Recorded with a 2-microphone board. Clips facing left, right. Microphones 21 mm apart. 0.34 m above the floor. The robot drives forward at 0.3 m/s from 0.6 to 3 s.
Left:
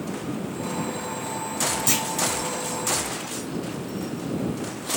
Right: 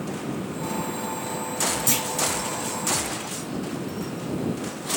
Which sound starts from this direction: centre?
A clunk, at 1.9 s.